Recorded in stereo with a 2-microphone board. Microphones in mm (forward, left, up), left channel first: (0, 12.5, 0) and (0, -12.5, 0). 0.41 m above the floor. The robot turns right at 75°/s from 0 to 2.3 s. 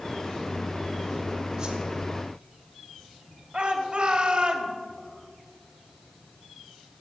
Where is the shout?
45° right (ahead or behind), 1.9 m.